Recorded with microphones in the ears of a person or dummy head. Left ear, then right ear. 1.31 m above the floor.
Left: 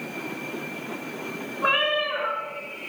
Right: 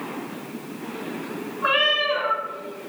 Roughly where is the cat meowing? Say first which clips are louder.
Right 3 dB; centre.